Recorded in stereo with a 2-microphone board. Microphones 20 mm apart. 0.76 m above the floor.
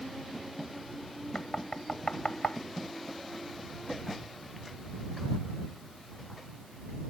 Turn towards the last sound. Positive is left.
turn(degrees=60)  # may be behind; listen again after turning